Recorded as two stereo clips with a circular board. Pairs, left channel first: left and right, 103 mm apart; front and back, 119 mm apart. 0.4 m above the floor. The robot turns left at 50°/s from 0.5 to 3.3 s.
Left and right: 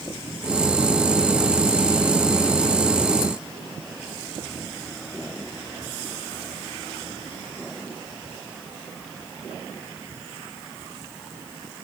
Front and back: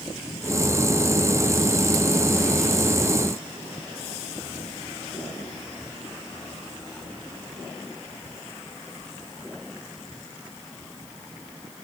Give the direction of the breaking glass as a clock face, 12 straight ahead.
I don't hear breaking glass.